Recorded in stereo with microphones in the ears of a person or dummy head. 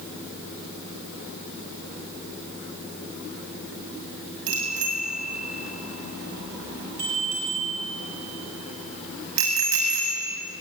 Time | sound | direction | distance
4.5 | a bicycle bell | 70° right (ahead or behind) | 6.5 m